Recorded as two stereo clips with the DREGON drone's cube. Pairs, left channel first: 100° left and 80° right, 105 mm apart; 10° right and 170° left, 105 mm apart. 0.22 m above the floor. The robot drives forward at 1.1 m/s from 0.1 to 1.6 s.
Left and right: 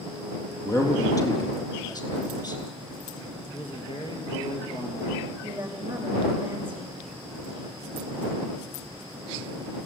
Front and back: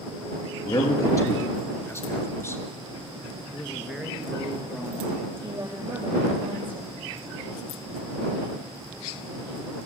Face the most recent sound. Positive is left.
turn(degrees=-150)